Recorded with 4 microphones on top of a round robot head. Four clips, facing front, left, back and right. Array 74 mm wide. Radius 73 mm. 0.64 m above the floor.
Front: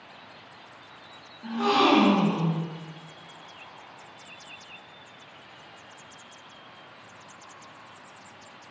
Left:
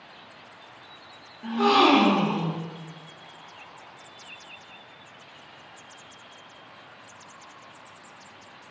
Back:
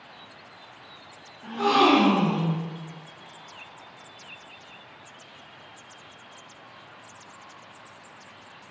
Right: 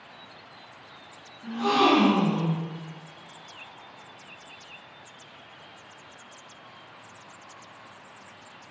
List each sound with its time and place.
1.4 s a gasp: 90° left, 0.7 m